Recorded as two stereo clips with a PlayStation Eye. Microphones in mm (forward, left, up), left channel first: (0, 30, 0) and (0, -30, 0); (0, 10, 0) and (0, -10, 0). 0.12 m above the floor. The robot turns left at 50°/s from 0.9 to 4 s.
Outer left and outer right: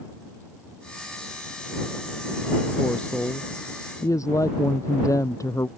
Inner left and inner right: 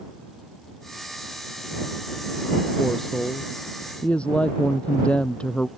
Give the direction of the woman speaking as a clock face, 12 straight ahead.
6 o'clock.